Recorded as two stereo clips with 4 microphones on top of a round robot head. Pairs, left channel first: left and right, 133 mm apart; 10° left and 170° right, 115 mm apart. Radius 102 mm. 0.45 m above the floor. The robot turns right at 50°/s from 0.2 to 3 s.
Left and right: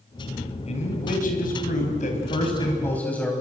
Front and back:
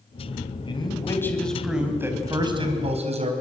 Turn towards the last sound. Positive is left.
turn(degrees=170)